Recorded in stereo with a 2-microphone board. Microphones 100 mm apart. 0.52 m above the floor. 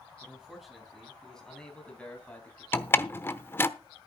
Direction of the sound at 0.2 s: 5° right (ahead or behind).